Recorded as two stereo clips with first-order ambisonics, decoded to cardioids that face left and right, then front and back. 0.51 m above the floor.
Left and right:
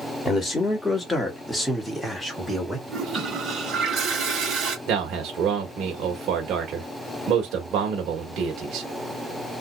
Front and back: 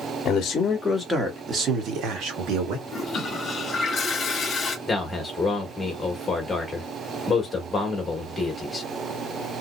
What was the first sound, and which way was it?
A man speaking, 15° left.